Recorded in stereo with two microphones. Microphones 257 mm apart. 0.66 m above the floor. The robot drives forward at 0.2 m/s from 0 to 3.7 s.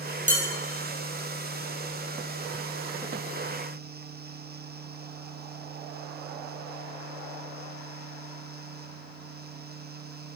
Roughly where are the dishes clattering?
Right.